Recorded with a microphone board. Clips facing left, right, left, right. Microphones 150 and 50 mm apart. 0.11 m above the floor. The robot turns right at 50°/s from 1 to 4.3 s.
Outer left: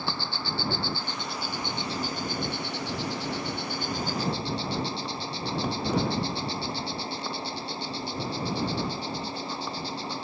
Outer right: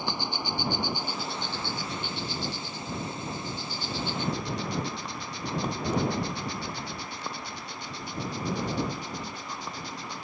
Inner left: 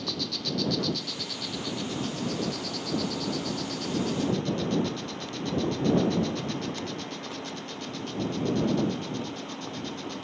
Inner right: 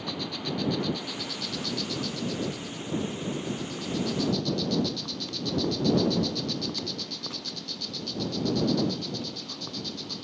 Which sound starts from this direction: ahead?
An insect, at 0.0 s.